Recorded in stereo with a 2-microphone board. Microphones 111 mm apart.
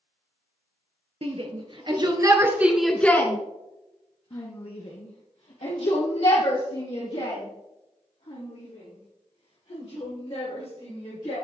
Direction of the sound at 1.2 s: 60° right (ahead or behind).